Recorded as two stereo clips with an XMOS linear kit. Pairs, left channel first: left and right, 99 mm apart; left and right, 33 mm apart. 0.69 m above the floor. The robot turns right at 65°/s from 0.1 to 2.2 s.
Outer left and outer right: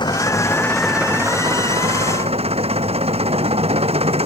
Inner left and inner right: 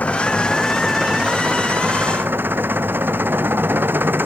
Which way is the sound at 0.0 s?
130° left.